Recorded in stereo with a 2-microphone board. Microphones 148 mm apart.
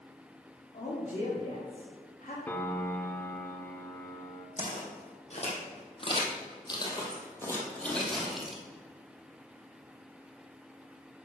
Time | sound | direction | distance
0.7 | a man speaking | 45° left (ahead or behind) | 2.5 m
2.5 | a piano | 15° left (ahead or behind) | 0.9 m
4.6 | footsteps | 55° left (ahead or behind) | 2.5 m